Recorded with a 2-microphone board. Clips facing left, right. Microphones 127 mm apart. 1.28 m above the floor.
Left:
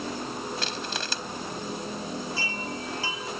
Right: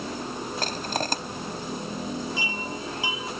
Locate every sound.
0.6 s crushing: 45° right (ahead or behind)
2.4 s a chime: 15° right (ahead or behind)